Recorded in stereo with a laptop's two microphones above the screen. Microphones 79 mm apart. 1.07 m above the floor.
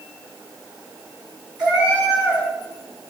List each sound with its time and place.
1.6 s a cat meowing: 15° right (ahead or behind), 4.5 m